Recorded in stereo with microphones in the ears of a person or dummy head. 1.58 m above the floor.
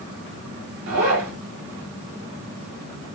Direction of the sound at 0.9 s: 70° right (ahead or behind).